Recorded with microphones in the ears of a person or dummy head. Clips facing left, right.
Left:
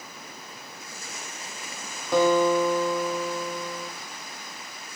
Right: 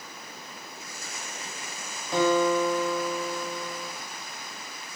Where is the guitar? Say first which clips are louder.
Left 3 dB; 55° left (ahead or behind), 0.7 m.